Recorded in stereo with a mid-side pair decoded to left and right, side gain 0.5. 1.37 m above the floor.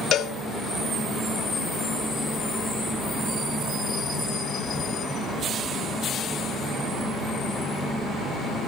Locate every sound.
0.1 s a cowbell: 60° left, 0.5 m